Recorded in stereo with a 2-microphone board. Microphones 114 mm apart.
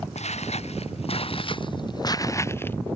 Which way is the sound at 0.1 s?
75° left (ahead or behind).